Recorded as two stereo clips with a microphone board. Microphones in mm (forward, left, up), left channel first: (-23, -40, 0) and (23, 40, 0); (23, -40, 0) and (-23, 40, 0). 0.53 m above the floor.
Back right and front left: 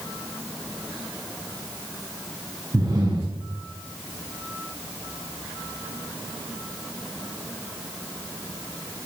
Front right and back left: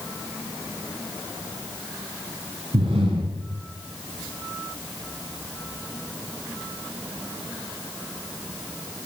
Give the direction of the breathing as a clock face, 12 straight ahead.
9 o'clock.